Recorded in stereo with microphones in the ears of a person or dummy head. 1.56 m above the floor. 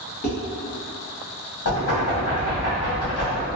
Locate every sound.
0.2 s dishes clattering: 35° left (ahead or behind), 0.9 m
1.6 s knocking: 60° left (ahead or behind), 1.3 m